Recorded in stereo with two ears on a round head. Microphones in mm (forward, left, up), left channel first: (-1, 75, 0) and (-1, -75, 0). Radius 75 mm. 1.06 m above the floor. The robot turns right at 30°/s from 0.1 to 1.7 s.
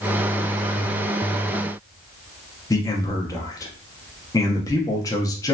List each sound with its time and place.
2.7 s a man speaking: 20° left (ahead or behind), 0.6 m